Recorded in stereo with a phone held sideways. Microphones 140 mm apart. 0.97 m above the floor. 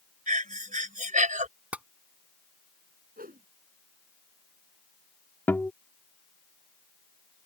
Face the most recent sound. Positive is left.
turn(degrees=15)  # may be behind; listen again after turning